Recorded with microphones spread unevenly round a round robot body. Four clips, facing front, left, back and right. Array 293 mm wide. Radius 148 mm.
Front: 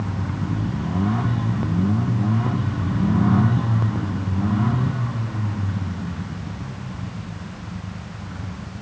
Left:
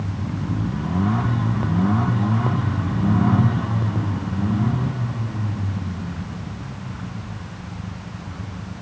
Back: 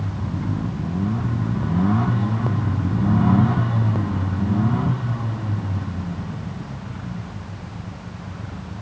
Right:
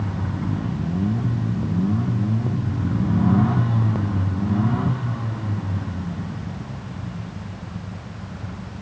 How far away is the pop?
No pop in this recording.